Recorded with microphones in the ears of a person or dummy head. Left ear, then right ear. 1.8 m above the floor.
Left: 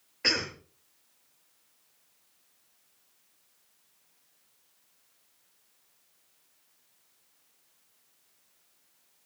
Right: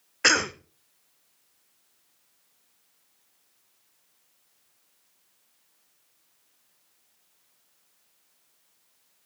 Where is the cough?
45° right (ahead or behind), 0.6 m.